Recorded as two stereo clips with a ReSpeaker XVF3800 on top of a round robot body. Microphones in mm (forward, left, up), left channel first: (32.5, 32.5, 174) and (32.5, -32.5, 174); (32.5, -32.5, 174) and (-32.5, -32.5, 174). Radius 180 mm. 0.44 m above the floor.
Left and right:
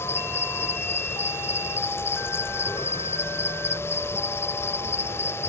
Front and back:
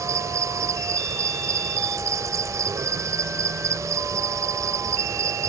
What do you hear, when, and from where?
0.0 s an insect: 140° left